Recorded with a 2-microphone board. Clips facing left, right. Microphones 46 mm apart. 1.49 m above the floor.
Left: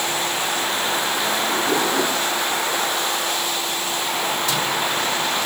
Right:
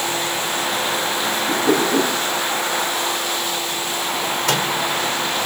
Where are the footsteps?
I don't hear footsteps.